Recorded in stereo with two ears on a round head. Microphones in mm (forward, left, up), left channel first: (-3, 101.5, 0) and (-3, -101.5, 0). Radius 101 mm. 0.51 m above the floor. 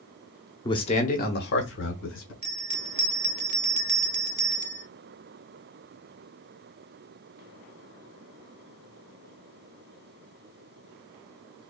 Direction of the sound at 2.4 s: 30° right (ahead or behind).